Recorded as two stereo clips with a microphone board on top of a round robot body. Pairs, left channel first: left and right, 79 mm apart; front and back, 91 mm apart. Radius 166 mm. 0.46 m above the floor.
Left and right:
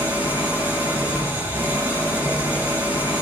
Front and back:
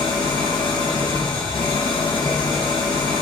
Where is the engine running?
25° right, 3.5 m.